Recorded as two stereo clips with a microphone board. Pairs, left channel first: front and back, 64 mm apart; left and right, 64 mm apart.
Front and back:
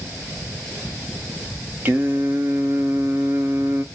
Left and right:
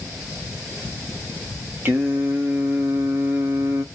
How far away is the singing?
About 0.9 m.